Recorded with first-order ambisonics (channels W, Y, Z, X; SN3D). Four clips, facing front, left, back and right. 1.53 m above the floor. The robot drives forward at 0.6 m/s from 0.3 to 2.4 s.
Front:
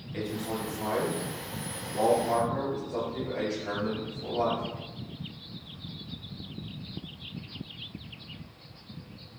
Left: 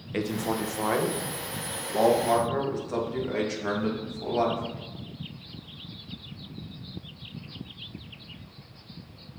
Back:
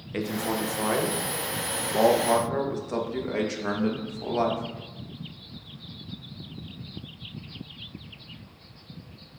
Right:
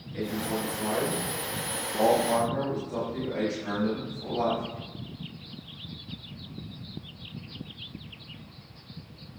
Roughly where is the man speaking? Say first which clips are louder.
Left 2 dB, back 5 dB; behind left.